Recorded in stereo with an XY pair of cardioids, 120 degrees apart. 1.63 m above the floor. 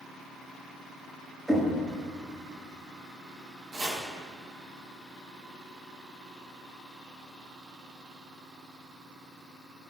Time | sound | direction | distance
1.5 | knocking | 10° right | 2 m
3.7 | chopping | 30° right | 2.5 m